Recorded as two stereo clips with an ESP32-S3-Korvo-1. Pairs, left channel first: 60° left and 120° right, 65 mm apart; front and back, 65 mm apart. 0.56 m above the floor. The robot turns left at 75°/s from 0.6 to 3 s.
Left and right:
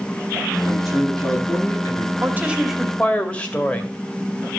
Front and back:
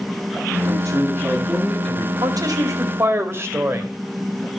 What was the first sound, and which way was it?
A man speaking, 170° left.